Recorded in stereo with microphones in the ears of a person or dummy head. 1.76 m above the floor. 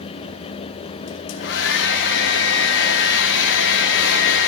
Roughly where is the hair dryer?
Left.